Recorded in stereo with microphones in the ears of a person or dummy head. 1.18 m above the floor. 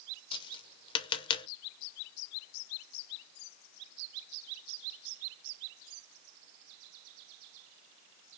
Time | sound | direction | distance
0.3 | tapping | 30° left (ahead or behind) | 0.7 m